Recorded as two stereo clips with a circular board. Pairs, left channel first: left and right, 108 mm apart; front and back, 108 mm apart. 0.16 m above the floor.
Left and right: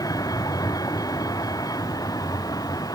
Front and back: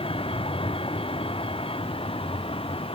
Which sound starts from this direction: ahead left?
A vehicle, at 0.0 s.